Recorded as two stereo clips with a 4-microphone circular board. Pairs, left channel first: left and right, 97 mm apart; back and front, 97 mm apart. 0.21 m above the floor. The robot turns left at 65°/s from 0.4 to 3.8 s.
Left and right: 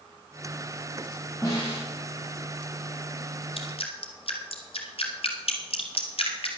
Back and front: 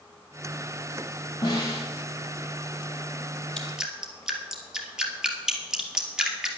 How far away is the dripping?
About 1.8 m.